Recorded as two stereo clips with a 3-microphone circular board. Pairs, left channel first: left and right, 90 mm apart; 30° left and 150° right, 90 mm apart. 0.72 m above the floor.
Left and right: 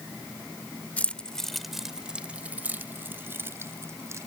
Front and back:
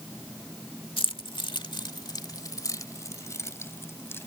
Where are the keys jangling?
15° left; by 4.3 s 35° right.